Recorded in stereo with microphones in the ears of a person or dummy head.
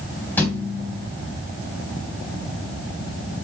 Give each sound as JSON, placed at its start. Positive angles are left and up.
{"t": 0.4, "sound": "a thud", "side_deg": 10, "distance_m": 2.5}